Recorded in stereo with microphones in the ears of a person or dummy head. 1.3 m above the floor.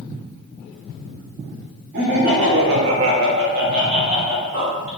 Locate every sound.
1.9 s laughter: 55° right (ahead or behind), 1.0 m; by 4.9 s 15° right (ahead or behind), 1.2 m